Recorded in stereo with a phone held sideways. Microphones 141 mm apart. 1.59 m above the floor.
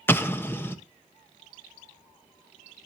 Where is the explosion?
15° left (ahead or behind), 0.8 m.